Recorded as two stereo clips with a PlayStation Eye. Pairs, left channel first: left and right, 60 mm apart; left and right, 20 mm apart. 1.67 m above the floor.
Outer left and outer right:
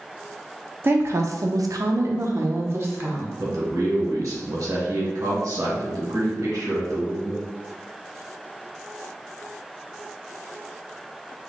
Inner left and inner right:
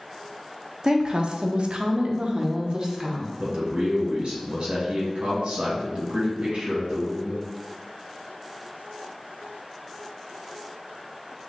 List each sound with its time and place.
0.8 s a woman speaking: 35° right (ahead or behind), 0.5 m; by 3.3 s 40° right (ahead or behind), 1.1 m
3.4 s a man speaking: 65° right (ahead or behind), 1.5 m